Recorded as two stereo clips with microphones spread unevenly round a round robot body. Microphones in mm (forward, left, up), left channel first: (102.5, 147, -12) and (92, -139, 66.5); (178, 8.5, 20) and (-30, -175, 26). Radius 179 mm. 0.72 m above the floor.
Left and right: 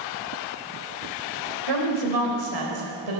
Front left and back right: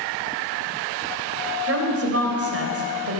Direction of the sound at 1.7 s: 100° right.